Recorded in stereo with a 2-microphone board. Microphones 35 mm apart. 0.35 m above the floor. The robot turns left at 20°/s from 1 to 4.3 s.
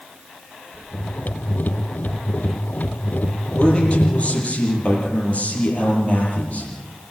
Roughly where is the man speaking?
Left.